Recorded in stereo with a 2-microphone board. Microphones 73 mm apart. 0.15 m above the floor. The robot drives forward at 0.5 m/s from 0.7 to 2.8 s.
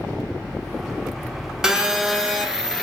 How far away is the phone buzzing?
About 0.9 m.